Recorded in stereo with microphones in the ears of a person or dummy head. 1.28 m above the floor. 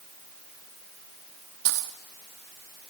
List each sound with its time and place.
1.6 s a dropped coin: 65° right (ahead or behind), 1.1 m